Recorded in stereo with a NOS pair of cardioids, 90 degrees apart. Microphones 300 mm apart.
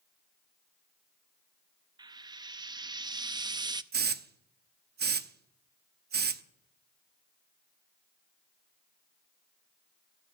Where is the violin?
I don't hear a violin.